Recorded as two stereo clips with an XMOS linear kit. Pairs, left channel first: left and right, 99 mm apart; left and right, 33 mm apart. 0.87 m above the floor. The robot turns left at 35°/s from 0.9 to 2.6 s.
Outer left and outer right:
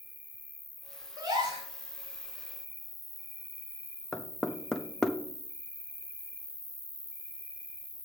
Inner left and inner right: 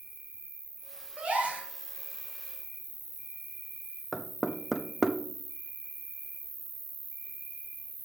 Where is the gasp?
40° right (ahead or behind), 2.5 m; by 1.7 s 60° right (ahead or behind), 2.5 m.